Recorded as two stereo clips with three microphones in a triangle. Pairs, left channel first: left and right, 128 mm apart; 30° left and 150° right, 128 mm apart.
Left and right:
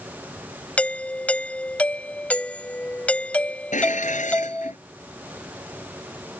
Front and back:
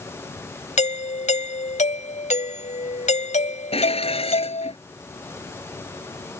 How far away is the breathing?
No breathing in this recording.